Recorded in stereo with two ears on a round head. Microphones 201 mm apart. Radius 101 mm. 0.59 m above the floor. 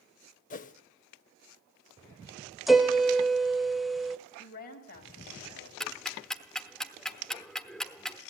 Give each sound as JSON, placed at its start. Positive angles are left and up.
{"t": 0.5, "sound": "a whoosh", "side_deg": 35, "distance_m": 0.7}
{"t": 2.7, "sound": "a piano", "side_deg": 0, "distance_m": 0.7}
{"t": 4.4, "sound": "a woman speaking", "side_deg": 45, "distance_m": 4.0}
{"t": 5.8, "sound": "ticking", "side_deg": 5, "distance_m": 0.9}